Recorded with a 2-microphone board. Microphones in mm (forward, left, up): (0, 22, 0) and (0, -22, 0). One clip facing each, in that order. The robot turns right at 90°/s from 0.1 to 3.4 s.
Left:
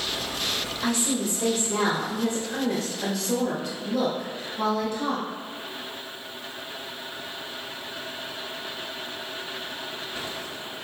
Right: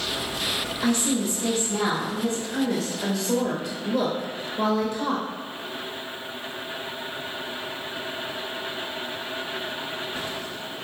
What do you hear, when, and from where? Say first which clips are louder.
0.8 s a woman speaking: right 3 dB; 40° right, 1.2 m; by 5.2 s 165° right, 1.2 m